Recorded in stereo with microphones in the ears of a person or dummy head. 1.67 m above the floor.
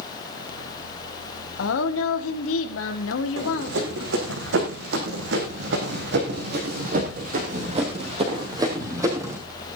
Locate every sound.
1.6 s a woman speaking: 85° left, 1.6 m
3.4 s running footsteps: 75° right (ahead or behind), 6 m; by 9.4 s 10° right (ahead or behind), 4 m